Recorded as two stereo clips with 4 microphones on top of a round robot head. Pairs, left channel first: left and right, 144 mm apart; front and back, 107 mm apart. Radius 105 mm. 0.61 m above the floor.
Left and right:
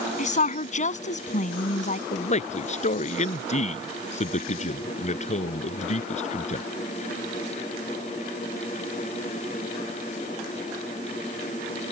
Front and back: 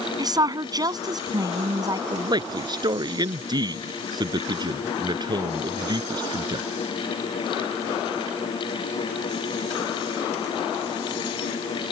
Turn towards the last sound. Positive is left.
turn(degrees=130)